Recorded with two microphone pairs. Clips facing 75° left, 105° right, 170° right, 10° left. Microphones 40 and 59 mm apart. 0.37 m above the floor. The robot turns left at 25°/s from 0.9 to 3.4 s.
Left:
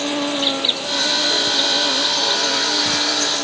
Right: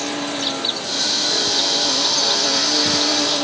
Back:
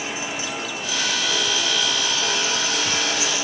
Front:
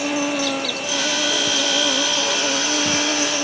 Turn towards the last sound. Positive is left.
turn(degrees=-35)